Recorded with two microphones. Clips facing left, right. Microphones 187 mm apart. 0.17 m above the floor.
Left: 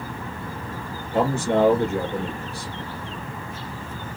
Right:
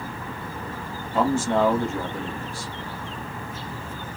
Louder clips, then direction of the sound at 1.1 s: Left 1 dB; 70° left (ahead or behind).